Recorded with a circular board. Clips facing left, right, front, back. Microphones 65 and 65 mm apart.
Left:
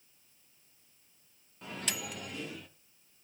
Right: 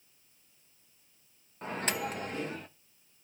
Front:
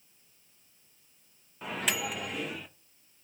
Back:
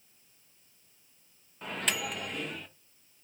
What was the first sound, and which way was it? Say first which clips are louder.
A microwave: right 6 dB, front 1 dB; 85° right.